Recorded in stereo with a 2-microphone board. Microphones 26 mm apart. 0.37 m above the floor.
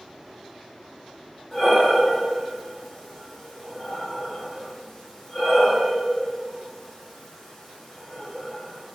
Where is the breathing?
15° left (ahead or behind), 9 m.